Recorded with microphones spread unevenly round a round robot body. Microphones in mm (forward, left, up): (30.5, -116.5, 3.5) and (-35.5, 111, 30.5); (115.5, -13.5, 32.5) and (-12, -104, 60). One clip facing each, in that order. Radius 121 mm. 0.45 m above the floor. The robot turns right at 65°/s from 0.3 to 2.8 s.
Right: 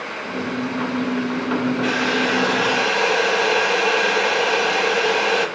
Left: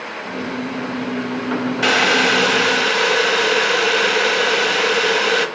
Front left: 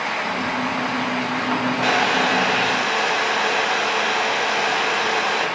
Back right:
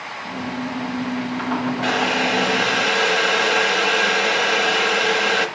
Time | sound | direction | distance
1.8 | boiling | 110° left | 1.0 m